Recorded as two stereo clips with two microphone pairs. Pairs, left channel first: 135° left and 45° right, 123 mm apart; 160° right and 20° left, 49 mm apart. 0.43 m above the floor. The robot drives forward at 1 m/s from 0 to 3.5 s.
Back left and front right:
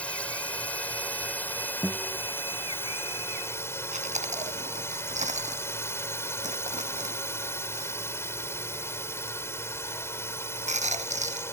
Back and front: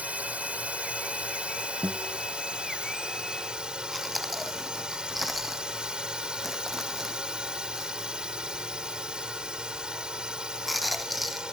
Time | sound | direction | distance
0.0 | a drone | 60° left | ?
1.8 | a guitar | 55° left | ?
3.9 | chewing | 70° right | ?